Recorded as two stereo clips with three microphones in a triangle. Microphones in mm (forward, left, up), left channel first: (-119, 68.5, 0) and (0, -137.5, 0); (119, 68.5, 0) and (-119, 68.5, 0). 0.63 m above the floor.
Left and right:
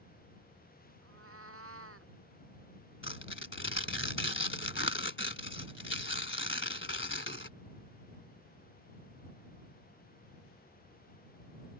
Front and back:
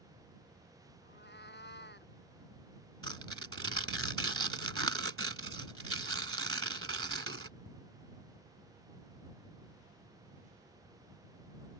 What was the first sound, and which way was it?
A cat meowing, 40° right.